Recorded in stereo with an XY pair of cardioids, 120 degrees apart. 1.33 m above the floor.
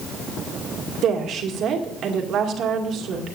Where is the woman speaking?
60° right, 2 m.